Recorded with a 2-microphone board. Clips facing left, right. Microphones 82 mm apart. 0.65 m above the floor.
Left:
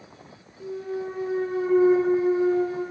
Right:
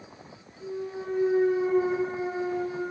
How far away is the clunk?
About 1.5 m.